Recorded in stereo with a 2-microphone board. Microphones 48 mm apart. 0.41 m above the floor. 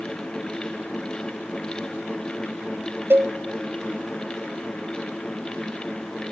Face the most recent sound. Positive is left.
turn(degrees=-55)  # may be behind; listen again after turning